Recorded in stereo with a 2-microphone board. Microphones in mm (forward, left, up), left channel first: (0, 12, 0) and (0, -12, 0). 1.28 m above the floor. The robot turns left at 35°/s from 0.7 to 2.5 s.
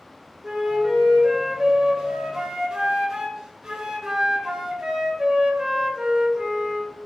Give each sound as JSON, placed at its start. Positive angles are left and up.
{"t": 0.4, "sound": "a flute", "side_deg": -15, "distance_m": 0.5}